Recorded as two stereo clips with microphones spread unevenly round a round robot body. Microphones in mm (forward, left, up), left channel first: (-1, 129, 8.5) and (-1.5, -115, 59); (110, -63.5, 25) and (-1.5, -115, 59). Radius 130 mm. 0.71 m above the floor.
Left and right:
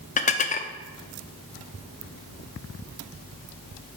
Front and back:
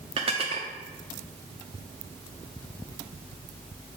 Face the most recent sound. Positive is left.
turn(degrees=145)